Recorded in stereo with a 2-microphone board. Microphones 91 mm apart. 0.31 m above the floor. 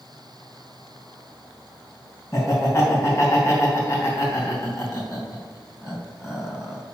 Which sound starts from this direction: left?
Laughter, at 2.3 s.